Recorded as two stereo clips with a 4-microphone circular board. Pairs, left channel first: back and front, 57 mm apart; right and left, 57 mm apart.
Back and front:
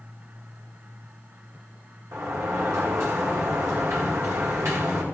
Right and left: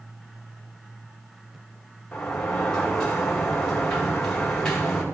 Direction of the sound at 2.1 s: 10° right.